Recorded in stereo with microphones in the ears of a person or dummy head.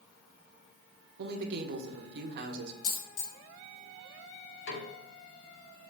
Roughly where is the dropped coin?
Left.